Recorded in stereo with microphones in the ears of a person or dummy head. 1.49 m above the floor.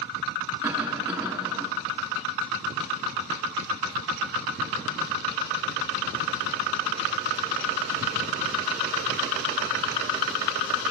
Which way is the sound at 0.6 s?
5° right (ahead or behind).